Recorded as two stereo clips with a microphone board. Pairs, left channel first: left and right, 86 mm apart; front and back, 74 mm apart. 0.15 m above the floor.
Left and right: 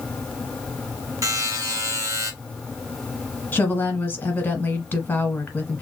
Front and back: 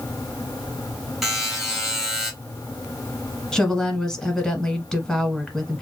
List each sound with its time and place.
1.2 s a buzzer: 90° right, 1.9 m
3.5 s a woman speaking: 75° left, 1.1 m